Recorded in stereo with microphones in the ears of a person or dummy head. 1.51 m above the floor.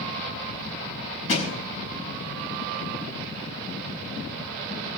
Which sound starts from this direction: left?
A thud, at 1.3 s.